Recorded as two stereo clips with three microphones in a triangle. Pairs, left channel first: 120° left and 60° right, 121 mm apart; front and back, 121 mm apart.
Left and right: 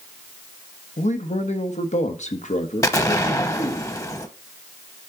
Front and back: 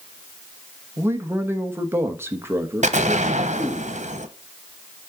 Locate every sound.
1.0 s a man speaking: 110° left, 1.1 m
2.8 s an explosion: 175° right, 0.9 m